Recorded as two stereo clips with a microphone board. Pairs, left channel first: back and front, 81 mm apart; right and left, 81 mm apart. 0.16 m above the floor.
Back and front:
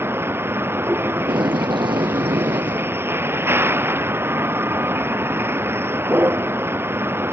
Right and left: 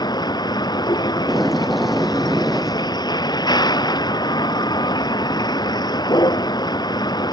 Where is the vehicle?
60° right.